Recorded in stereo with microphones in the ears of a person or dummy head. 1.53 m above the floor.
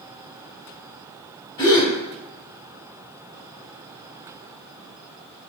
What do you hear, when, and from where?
1.6 s a gasp: 25° left (ahead or behind), 1.7 m